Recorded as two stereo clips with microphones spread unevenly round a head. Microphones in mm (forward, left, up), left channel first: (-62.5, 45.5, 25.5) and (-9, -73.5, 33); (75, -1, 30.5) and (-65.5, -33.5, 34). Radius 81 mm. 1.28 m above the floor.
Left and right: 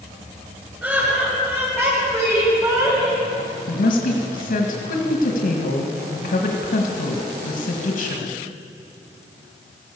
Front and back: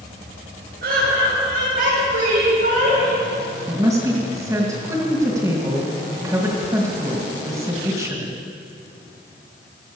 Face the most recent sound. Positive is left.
turn(degrees=120)